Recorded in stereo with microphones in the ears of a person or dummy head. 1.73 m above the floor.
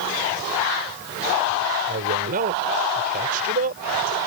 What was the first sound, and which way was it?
A man speaking, 50° right (ahead or behind).